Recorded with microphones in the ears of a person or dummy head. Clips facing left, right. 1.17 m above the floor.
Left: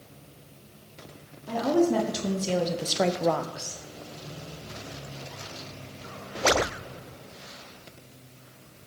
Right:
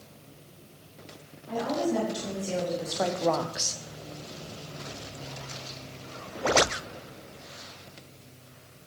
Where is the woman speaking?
70° left (ahead or behind), 2.0 m; by 3.8 s 35° right (ahead or behind), 0.7 m.